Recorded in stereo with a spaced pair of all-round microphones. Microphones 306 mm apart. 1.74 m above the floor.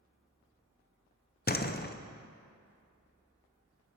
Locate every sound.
1.5 s a door slam: 30° left (ahead or behind), 0.7 m